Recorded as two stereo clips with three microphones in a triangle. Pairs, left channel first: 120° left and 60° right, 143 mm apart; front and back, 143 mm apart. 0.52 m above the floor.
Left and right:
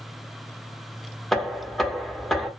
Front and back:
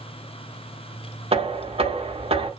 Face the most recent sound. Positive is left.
turn(degrees=-150)